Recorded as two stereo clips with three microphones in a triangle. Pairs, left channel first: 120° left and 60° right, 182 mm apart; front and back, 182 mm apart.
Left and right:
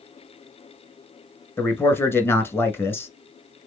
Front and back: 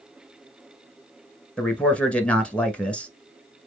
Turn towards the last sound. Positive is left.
turn(degrees=70)